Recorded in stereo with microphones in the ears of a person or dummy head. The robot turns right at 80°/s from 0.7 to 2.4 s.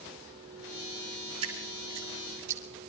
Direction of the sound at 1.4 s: 30° right (ahead or behind).